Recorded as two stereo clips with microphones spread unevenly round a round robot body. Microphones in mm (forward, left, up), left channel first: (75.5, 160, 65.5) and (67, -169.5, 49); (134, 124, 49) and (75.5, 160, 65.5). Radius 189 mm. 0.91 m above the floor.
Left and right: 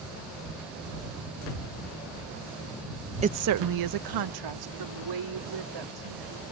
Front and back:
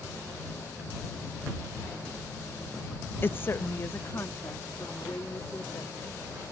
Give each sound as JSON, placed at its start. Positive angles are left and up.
{"t": 3.2, "sound": "a woman speaking", "azimuth_deg": -30}